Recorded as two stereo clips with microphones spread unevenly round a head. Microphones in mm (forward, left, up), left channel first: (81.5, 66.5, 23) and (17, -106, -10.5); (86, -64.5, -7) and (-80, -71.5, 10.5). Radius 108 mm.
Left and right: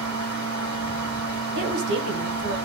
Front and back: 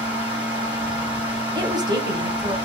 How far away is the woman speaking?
About 1.1 m.